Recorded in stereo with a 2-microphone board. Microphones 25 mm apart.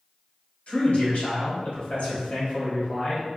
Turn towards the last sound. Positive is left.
turn(degrees=60)  # may be behind; listen again after turning